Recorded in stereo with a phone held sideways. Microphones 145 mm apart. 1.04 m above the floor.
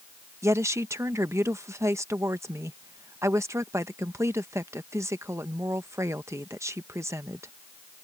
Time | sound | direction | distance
0.4 | a woman speaking | 20° right (ahead or behind) | ?